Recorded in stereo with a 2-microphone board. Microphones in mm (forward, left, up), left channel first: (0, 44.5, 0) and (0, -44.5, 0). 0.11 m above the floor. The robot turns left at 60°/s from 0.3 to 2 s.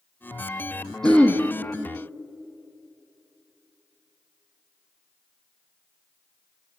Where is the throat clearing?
5° left (ahead or behind), 0.8 m; by 1.4 s 25° left (ahead or behind), 0.8 m.